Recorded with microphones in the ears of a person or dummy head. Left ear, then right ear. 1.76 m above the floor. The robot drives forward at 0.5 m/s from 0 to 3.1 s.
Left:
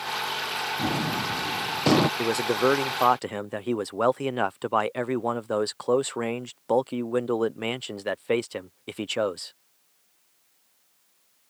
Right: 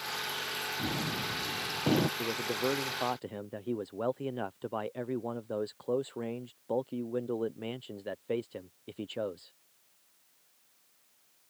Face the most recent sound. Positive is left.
turn(degrees=35)  # may be behind; listen again after turning